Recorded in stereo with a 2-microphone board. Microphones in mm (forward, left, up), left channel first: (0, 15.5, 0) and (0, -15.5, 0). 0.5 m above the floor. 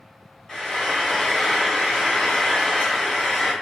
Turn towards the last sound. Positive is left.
turn(degrees=30)  # may be behind; listen again after turning